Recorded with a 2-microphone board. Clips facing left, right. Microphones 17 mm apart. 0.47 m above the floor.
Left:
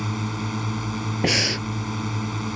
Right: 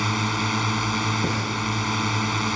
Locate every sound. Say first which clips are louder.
0.0 s a drone: right 5 dB; 40° right (ahead or behind)
1.2 s breathing: left 4 dB; 85° left